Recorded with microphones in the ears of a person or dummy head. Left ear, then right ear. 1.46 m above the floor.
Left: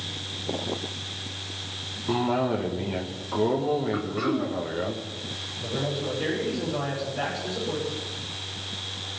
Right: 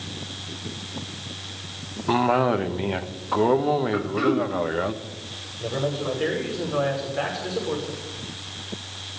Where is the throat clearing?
25° right (ahead or behind), 0.8 m.